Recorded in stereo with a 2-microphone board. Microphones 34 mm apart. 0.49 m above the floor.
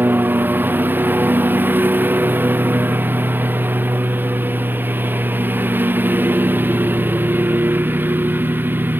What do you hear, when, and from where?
0.0 s a lawn mower: 75° right (ahead or behind)